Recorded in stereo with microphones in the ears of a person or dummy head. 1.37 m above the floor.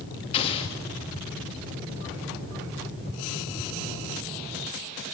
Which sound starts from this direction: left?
An explosion, at 0.3 s.